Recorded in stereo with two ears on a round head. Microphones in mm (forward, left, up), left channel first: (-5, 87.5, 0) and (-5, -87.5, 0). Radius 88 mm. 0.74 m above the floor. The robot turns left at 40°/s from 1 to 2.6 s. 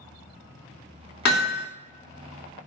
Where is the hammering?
55° left (ahead or behind), 1.5 m; by 1.6 s 70° left (ahead or behind), 1.5 m.